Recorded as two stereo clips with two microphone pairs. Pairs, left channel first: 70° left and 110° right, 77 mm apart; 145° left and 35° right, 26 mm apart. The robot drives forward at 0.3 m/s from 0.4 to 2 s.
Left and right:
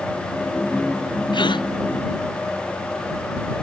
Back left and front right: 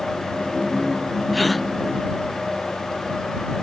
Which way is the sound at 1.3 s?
60° left.